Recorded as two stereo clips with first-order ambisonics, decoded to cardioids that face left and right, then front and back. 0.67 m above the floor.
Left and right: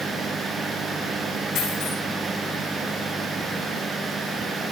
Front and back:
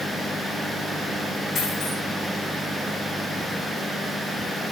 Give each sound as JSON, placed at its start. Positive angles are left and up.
{"t": 1.6, "sound": "a dropped coin", "azimuth_deg": 65, "distance_m": 9.0}